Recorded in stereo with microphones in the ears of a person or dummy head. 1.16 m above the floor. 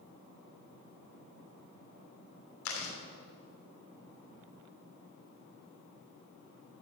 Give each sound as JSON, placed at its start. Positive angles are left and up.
{"t": 2.6, "sound": "chewing", "side_deg": 85, "distance_m": 2.5}